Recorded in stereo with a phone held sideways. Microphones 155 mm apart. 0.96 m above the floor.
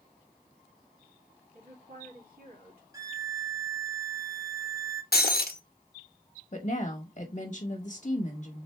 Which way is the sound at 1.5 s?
70° right (ahead or behind).